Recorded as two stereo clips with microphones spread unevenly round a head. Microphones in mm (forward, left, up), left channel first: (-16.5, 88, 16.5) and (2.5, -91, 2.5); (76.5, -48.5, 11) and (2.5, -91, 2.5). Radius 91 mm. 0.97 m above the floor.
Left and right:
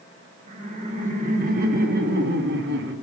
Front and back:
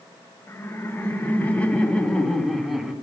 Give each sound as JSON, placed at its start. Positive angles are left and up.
{"t": 0.5, "sound": "laughter", "azimuth_deg": -35, "distance_m": 2.5}